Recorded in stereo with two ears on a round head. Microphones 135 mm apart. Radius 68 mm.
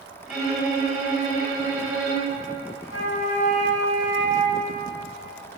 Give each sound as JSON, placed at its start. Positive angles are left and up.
{"t": 0.3, "sound": "a violin", "side_deg": -5, "distance_m": 1.8}
{"t": 2.8, "sound": "a flute", "side_deg": 80, "distance_m": 1.1}